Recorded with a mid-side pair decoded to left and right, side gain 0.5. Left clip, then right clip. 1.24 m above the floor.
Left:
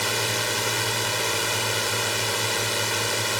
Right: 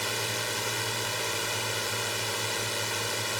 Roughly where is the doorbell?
I don't hear a doorbell.